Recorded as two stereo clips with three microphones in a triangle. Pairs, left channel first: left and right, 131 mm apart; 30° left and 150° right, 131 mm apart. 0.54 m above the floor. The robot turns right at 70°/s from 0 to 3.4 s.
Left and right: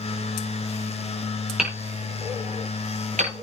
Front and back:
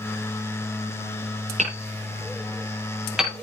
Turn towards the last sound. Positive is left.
turn(degrees=-50)